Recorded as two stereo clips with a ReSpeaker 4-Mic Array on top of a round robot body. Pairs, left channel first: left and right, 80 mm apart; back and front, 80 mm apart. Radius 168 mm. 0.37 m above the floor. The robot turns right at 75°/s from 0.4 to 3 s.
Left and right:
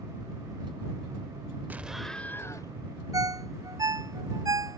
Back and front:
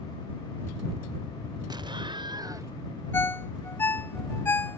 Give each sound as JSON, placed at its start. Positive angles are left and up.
{"t": 1.7, "sound": "an explosion", "azimuth_deg": -25}
{"t": 3.1, "sound": "a ringtone", "azimuth_deg": -120}